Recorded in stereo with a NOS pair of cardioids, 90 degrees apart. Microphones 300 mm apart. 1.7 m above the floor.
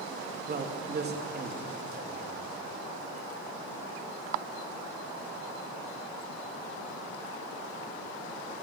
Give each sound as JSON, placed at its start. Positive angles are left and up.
{"t": 0.5, "sound": "a man speaking", "azimuth_deg": -35, "distance_m": 2.5}